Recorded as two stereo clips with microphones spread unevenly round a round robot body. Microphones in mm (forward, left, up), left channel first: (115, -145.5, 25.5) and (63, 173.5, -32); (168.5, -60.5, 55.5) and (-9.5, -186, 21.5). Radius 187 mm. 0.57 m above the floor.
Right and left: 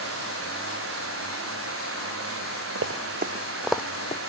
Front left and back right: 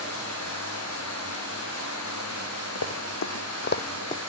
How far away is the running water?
About 5.5 m.